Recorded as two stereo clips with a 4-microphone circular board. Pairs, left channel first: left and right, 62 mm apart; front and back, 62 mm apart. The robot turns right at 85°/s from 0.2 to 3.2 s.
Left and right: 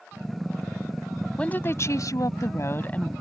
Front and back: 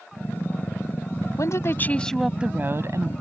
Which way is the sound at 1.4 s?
20° left.